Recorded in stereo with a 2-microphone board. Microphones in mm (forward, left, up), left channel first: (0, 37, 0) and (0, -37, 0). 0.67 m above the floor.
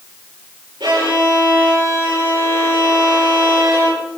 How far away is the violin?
About 8 m.